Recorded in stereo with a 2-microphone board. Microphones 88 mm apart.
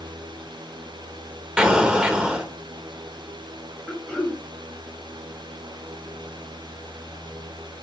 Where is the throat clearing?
15° left (ahead or behind), 1.5 m.